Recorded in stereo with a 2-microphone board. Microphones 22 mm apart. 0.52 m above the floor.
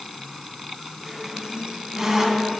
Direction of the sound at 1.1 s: 20° right (ahead or behind).